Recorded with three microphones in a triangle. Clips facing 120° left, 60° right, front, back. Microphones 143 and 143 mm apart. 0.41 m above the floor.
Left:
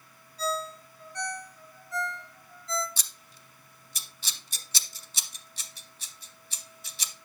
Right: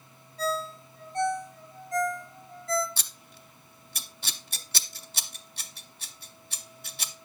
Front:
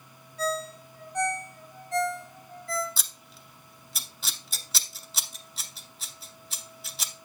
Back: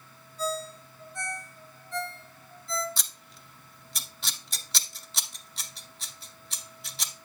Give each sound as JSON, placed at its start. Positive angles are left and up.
{"t": 0.4, "sound": "a ringtone", "azimuth_deg": -15, "distance_m": 1.0}
{"t": 3.0, "sound": "scissors", "azimuth_deg": -90, "distance_m": 0.6}